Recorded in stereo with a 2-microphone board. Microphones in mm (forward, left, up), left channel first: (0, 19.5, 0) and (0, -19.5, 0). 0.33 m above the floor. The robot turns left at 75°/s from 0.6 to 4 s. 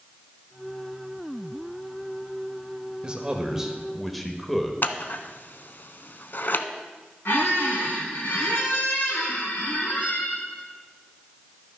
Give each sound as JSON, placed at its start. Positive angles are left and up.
{"t": 3.0, "sound": "a man speaking", "side_deg": -25, "distance_m": 0.9}
{"t": 4.8, "sound": "scissors", "side_deg": 60, "distance_m": 0.5}
{"t": 7.2, "sound": "a squeak", "side_deg": 65, "distance_m": 1.9}